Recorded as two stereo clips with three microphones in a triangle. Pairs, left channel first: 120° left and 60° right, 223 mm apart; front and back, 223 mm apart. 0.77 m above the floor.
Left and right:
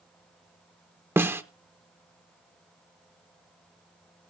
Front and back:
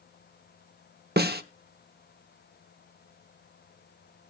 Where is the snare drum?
140° right, 0.8 m.